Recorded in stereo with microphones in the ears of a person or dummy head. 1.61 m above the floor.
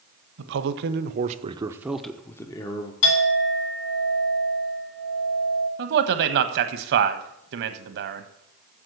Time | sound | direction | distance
0.4 | a man speaking | 75° right (ahead or behind) | 1.2 m
3.0 | a clink | 80° left | 4 m
5.8 | a man speaking | 60° right (ahead or behind) | 1.2 m